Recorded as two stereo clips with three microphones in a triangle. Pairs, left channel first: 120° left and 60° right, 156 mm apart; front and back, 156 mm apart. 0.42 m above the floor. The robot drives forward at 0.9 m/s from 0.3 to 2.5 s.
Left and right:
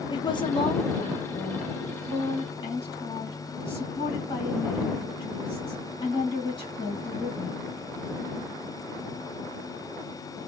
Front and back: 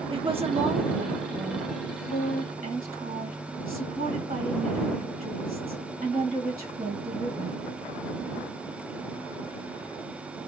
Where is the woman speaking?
160° left, 0.9 m; by 7.6 s 175° left, 2.5 m.